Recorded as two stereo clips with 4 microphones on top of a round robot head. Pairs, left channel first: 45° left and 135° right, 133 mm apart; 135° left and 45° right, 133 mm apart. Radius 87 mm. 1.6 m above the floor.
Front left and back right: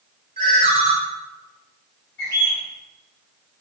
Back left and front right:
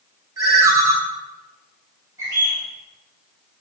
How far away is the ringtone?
About 0.5 m.